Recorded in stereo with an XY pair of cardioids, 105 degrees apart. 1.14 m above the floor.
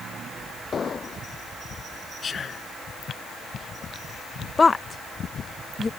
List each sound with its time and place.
0.7 s an explosion: 40° left
2.2 s whispering: 40° left
4.6 s a woman speaking: 25° left